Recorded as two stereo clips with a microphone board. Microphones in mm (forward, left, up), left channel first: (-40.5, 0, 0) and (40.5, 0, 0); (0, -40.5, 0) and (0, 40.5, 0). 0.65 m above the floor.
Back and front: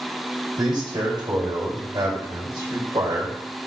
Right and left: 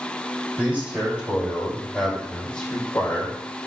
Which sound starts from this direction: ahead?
A man speaking, at 0.6 s.